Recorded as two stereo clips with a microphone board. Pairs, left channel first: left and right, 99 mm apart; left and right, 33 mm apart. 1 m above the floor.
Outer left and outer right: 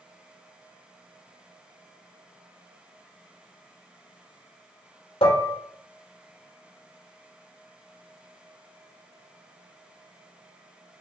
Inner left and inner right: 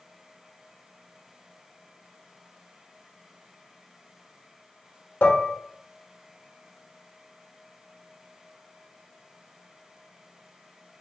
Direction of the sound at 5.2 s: 85° left.